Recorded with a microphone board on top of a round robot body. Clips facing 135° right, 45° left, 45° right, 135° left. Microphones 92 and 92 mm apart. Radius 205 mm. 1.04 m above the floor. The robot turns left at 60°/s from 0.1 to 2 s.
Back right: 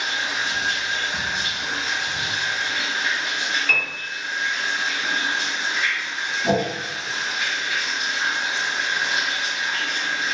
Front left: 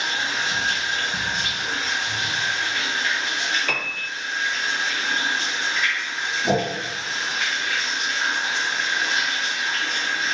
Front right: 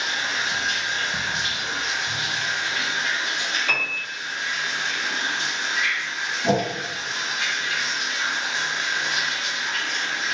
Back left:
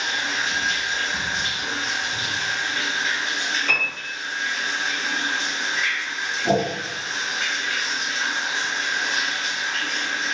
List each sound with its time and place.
0.0 s running water: 55° left, 1.5 m; by 10.3 s 60° right, 1.5 m
3.7 s a piano: 45° left, 0.9 m
6.4 s a whoosh: 65° right, 1.3 m